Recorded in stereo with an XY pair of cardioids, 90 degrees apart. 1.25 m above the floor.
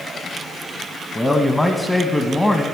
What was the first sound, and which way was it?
A man speaking, 15° left.